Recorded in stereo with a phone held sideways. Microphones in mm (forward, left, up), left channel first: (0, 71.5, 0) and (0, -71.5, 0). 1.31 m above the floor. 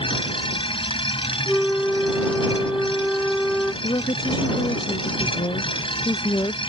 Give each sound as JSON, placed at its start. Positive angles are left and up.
{"t": 0.0, "sound": "a machine running", "side_deg": 35}
{"t": 1.5, "sound": "a flute", "side_deg": 5}
{"t": 3.8, "sound": "a woman speaking", "side_deg": 30}